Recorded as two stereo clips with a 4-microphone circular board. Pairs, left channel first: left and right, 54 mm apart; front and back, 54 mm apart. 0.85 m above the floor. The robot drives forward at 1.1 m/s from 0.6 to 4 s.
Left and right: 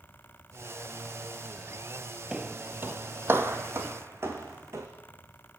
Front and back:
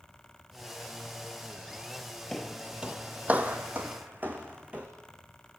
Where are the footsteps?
65° right, 0.8 m; by 4.9 s 115° right, 3 m.